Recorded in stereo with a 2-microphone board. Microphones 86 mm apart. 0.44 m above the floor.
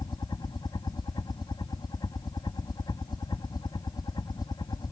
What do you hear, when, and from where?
0.0 s a helicopter: 55° left (ahead or behind)